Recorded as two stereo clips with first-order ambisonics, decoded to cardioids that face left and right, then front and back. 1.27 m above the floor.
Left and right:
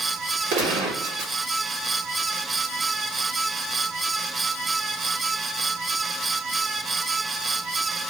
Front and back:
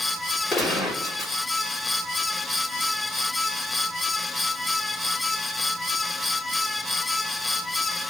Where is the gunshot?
70° right, 1.6 m.